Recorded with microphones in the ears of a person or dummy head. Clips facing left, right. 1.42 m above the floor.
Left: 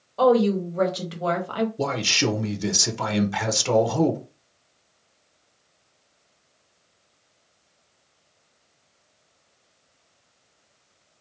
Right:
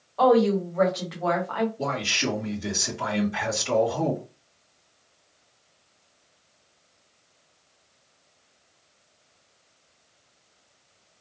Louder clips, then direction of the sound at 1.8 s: Left 4 dB; 85° left.